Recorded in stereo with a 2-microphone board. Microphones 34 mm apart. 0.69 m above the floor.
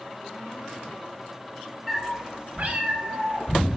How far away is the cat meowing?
About 0.6 m.